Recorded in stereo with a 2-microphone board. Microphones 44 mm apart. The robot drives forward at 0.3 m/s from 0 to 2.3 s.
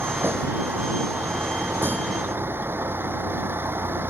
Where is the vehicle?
55° right (ahead or behind); by 4.1 s 60° right (ahead or behind).